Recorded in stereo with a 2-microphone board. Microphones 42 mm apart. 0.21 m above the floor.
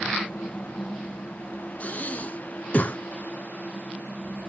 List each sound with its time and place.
1.8 s breathing: 40° left (ahead or behind), 0.7 m